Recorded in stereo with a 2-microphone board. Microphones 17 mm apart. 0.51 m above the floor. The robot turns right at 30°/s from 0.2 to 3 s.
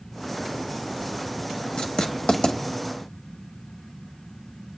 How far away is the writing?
About 1.0 m.